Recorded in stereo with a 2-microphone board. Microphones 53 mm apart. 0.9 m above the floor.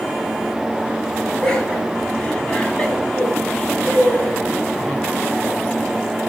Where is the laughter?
20° left (ahead or behind), 8.5 m; by 5.0 s 30° left (ahead or behind), 6 m.